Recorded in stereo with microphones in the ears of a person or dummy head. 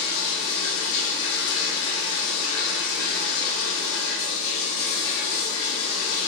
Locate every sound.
0.0 s running water: 65° left (ahead or behind), 1.0 m